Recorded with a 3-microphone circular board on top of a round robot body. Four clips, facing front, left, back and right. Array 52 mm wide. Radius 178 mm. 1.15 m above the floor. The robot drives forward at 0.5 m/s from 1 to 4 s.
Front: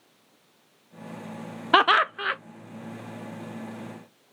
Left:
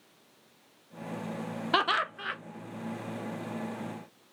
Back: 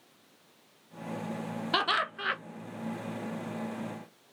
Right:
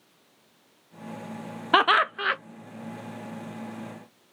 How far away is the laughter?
About 0.6 m.